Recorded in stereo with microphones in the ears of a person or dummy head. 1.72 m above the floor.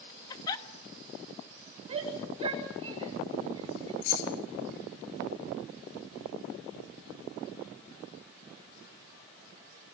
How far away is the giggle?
About 1.3 m.